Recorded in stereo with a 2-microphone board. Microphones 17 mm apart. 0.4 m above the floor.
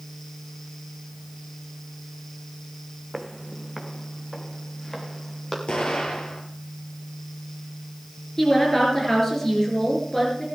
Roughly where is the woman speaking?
Centre.